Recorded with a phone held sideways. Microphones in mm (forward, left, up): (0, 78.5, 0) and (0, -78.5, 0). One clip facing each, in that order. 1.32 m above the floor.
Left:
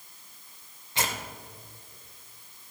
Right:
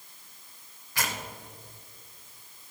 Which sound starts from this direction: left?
Tearing paper, at 0.9 s.